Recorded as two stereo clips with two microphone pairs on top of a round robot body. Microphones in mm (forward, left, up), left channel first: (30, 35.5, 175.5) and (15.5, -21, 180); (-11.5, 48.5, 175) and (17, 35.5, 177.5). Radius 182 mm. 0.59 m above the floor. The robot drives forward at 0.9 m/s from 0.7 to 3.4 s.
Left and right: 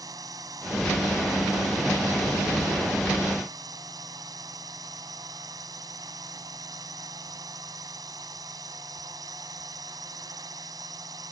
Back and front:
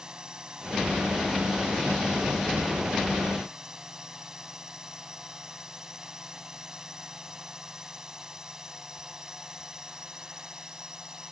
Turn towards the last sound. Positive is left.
turn(degrees=-95)